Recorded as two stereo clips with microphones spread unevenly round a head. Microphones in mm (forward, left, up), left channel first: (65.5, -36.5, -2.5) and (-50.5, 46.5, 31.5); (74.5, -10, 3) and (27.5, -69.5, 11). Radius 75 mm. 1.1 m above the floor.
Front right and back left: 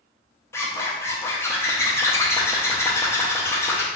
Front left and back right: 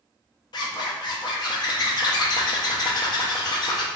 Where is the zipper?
45° left, 0.5 m.